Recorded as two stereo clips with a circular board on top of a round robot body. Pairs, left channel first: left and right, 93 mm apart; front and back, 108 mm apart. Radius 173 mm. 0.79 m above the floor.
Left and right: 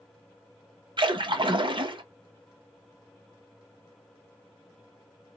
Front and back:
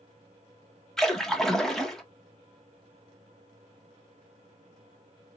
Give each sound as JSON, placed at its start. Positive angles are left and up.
{"t": 1.0, "sound": "a splash", "azimuth_deg": -85, "distance_m": 1.6}